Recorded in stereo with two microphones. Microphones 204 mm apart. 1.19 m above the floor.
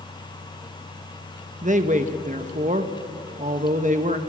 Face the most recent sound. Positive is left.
turn(degrees=-35)  # may be behind; listen again after turning